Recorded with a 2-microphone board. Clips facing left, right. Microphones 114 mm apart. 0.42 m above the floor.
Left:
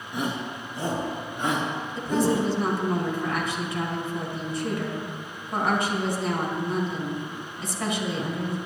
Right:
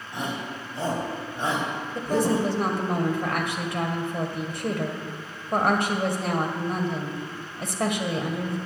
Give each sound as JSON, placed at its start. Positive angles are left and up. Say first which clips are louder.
{"t": 0.1, "sound": "a shout", "louder": "left 2 dB", "side_deg": -25, "distance_m": 3.0}
{"t": 1.9, "sound": "a woman speaking", "louder": "even", "side_deg": -60, "distance_m": 1.8}